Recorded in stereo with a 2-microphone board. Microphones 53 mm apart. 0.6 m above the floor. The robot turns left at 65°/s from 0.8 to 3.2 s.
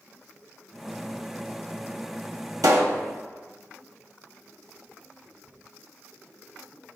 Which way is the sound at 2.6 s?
85° right.